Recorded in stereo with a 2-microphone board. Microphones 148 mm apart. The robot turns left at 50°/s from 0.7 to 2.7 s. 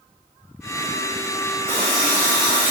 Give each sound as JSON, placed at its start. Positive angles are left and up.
{"t": 1.7, "sound": "a running tap", "azimuth_deg": 10, "distance_m": 1.4}